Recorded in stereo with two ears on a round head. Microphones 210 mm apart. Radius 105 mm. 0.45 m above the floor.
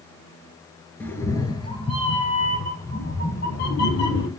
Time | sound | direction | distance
1.0 | a cat meowing | 10° left (ahead or behind) | 1.6 m